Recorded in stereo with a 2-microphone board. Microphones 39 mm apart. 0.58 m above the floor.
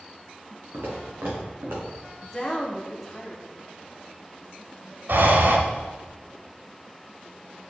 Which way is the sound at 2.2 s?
5° left (ahead or behind).